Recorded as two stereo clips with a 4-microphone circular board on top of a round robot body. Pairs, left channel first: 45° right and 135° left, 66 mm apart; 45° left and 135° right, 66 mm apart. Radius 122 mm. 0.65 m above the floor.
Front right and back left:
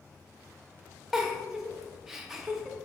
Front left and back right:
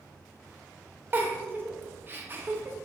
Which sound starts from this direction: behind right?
A giggle, at 1.1 s.